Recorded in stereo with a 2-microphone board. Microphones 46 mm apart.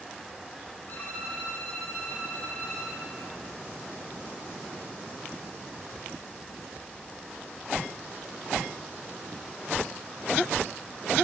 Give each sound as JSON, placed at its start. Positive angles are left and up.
{"t": 0.9, "sound": "a violin", "side_deg": 40, "distance_m": 1.7}